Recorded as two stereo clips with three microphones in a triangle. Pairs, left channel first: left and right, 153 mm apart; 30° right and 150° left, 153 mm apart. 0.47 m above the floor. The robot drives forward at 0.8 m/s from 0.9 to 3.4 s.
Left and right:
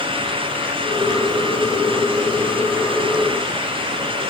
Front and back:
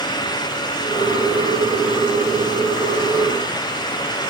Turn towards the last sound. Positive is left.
No sound to turn to.